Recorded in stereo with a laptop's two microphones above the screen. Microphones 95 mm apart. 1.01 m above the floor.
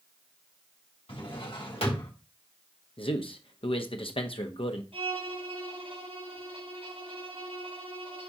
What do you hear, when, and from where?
1.1 s a drawer: 80° left, 3 m
3.0 s a man speaking: 75° left (ahead or behind), 1.3 m
4.9 s a violin: 85° right, 4.5 m